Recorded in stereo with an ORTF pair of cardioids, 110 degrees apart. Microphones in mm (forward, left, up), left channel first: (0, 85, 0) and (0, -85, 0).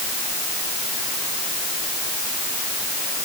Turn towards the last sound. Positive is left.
No sound to turn to.